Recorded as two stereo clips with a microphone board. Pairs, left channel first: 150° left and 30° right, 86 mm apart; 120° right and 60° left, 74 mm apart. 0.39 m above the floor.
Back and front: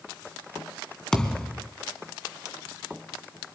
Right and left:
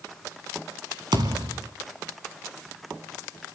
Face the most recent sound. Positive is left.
turn(degrees=65)